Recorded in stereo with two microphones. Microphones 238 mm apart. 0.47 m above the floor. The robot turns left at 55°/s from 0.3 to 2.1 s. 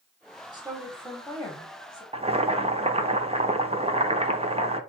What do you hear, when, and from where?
0.5 s a woman speaking: 15° right (ahead or behind), 1.3 m; by 2.0 s 20° left (ahead or behind), 1.3 m
2.1 s boiling: 25° right (ahead or behind), 0.7 m